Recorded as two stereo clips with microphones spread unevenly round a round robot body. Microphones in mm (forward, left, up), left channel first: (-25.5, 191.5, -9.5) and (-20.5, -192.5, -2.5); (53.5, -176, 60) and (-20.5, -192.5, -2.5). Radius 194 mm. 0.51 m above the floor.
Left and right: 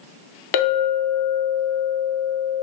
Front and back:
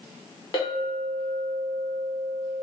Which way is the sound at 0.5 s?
90° left.